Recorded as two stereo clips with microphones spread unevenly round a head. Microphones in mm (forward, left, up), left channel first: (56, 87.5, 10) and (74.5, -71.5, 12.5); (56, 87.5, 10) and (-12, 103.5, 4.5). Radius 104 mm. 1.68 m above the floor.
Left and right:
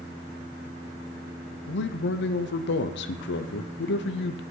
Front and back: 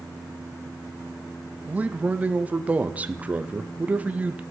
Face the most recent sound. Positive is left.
turn(degrees=95)